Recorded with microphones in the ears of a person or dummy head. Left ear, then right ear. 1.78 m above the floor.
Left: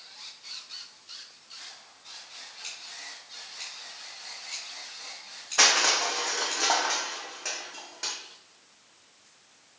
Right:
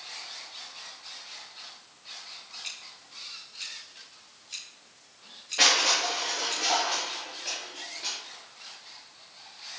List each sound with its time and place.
2.6 s scissors: 25° left (ahead or behind), 3.5 m
5.6 s crushing: 50° left (ahead or behind), 1.6 m